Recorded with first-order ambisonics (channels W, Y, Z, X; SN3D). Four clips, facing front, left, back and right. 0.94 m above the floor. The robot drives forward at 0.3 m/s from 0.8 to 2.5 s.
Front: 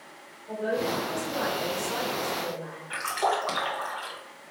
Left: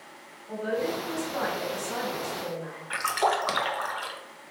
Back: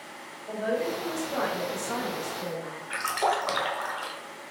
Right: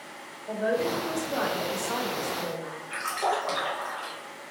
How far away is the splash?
About 0.6 m.